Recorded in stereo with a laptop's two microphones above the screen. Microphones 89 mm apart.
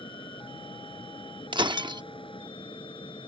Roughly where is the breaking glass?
Right.